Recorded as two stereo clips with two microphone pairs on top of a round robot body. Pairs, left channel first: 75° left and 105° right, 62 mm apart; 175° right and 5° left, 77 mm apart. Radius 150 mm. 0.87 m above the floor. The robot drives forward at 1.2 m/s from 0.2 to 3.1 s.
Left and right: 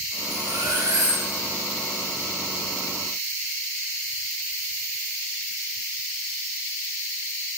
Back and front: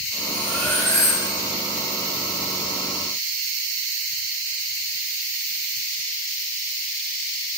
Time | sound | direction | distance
0.3 | cutlery clinking | 95° right | 1.7 m